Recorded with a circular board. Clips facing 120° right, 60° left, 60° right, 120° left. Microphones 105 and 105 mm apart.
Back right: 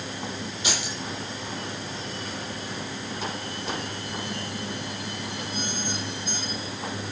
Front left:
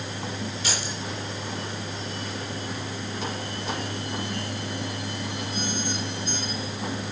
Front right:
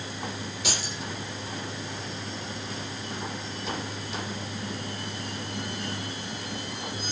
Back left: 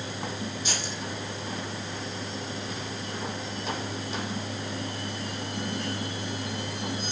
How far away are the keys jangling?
About 8.5 m.